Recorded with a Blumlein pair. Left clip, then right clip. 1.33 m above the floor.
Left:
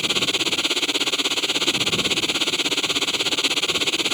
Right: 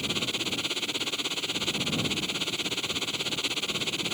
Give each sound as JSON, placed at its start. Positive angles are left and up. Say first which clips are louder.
{"t": 0.0, "sound": "a machine running", "louder": "left 9 dB", "azimuth_deg": 65}